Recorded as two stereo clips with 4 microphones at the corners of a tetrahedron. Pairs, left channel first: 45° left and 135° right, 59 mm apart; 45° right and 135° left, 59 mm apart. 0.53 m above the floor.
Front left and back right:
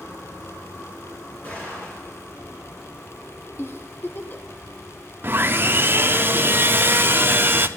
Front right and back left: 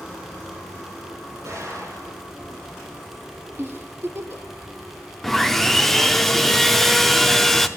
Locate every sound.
1.4 s an explosion: 110° left, 4 m
3.6 s a giggle: 90° left, 0.9 m
5.2 s sawing: 130° right, 0.5 m